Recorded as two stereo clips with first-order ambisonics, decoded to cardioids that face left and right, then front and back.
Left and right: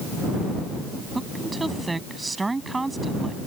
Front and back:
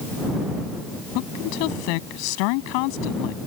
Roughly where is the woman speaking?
Ahead.